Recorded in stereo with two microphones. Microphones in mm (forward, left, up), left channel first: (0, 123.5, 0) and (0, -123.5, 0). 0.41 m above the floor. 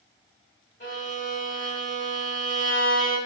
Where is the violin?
50° left (ahead or behind), 2.5 m.